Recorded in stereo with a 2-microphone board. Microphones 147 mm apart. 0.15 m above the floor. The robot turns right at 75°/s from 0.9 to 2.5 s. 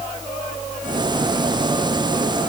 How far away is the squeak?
I don't hear a squeak.